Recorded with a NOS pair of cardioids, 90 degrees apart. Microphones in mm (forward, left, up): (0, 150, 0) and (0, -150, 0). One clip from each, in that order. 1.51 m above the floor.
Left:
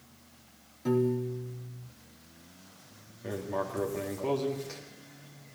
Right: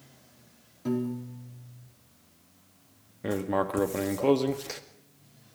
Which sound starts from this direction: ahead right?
Writing, at 3.2 s.